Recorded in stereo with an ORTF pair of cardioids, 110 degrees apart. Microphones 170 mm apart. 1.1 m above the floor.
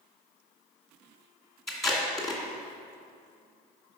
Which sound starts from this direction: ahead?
Tape being pulled, at 1.7 s.